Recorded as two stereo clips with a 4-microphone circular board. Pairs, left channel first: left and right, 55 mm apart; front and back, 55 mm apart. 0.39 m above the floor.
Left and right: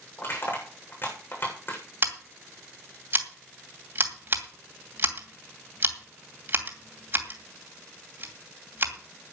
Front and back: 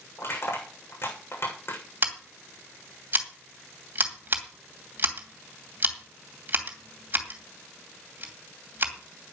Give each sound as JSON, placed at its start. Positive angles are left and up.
{"t": 0.2, "sound": "crushing", "azimuth_deg": 40, "distance_m": 7.5}
{"t": 2.0, "sound": "scissors", "azimuth_deg": -135, "distance_m": 2.5}